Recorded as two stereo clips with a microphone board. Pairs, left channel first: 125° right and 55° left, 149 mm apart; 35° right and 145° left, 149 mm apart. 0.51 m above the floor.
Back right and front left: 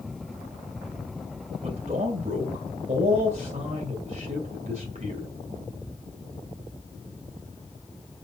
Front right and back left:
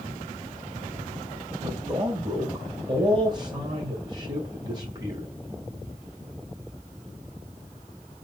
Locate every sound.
1.6 s a man speaking: 85° left, 2 m